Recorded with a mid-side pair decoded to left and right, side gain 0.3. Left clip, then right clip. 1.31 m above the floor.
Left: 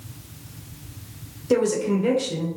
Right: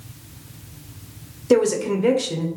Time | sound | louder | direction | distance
1.5 | a woman speaking | right 3 dB | 55° right | 0.8 m